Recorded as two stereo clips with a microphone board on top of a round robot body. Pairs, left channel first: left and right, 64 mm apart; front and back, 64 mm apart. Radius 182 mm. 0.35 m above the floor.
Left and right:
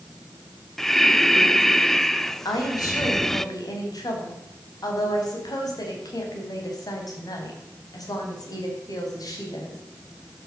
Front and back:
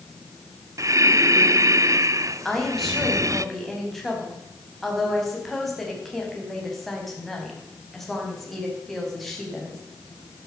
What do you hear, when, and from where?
0.8 s breathing: 175° left, 0.6 m
2.5 s a woman speaking: 90° left, 4.5 m